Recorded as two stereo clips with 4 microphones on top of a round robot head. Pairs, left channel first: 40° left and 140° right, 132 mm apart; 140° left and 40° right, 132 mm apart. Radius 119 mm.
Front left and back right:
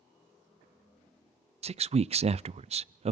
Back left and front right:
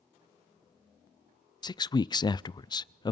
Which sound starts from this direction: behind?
A man speaking, at 1.6 s.